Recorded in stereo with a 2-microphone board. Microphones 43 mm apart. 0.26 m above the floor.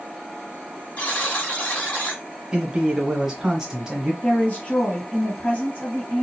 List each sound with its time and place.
1.0 s a buzzer: 35° left (ahead or behind), 1.5 m
2.5 s a man speaking: 15° right (ahead or behind), 1.1 m
4.2 s a woman speaking: 45° left (ahead or behind), 1.8 m